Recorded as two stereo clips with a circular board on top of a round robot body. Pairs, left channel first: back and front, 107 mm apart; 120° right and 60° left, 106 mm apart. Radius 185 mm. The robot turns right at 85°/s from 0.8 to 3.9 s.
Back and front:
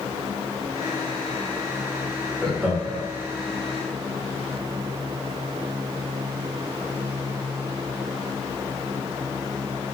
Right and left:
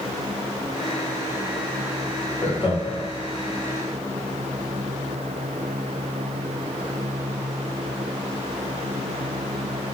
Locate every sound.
2.4 s laughter: 105° right, 1.7 m; by 3.0 s 50° right, 1.7 m